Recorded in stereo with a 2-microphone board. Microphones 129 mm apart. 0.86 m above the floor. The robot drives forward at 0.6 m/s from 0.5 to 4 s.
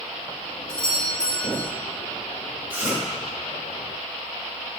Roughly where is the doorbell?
Centre.